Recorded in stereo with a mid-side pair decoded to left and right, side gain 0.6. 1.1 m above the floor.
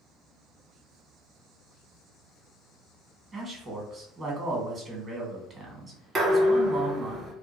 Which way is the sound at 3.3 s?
30° right.